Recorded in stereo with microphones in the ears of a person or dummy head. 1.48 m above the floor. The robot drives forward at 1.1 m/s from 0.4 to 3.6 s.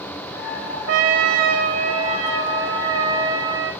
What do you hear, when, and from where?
0.9 s a trumpet: 70° right (ahead or behind), 1.8 m; by 3.7 s 25° right (ahead or behind), 3.5 m